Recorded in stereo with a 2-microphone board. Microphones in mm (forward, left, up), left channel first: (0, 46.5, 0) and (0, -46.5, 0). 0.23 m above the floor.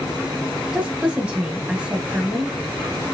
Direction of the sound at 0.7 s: 10° right (ahead or behind).